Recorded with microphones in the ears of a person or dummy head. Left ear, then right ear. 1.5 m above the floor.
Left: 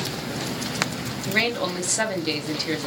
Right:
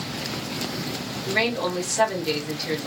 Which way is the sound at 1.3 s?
10° left (ahead or behind).